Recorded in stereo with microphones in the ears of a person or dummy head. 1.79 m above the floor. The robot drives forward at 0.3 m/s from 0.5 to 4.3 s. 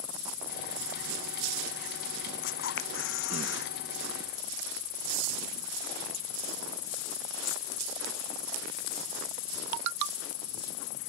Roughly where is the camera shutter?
Left.